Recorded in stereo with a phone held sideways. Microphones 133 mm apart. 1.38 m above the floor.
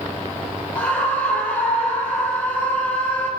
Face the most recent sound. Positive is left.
turn(degrees=10)  # may be behind; listen again after turning